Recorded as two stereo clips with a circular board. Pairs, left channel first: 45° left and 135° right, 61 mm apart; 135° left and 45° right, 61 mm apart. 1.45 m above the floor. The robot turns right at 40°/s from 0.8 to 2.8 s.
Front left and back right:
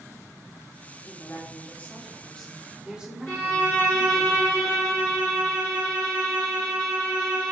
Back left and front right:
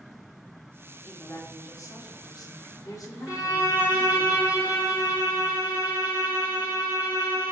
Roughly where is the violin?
Ahead.